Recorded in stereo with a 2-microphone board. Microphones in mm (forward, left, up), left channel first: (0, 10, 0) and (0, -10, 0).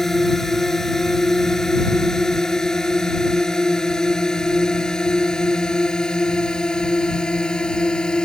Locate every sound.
0.0 s a drone: 15° left (ahead or behind); by 8.3 s 45° left (ahead or behind)